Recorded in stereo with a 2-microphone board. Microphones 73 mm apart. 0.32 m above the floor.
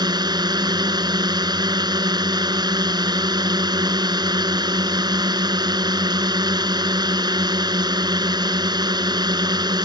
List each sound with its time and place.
0.0 s a drone: 70° right (ahead or behind)